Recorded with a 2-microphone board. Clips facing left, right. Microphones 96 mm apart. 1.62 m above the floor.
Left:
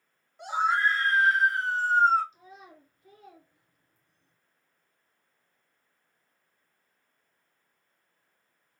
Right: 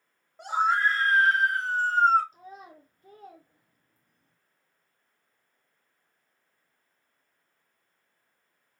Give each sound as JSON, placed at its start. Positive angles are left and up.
{"t": 0.4, "sound": "a scream", "side_deg": -40, "distance_m": 3.0}
{"t": 2.3, "sound": "a child speaking", "side_deg": -45, "distance_m": 0.6}